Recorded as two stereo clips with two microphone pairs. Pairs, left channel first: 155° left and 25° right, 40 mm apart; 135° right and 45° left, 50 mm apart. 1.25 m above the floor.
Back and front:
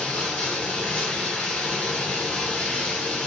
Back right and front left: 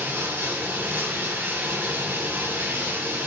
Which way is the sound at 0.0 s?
90° left.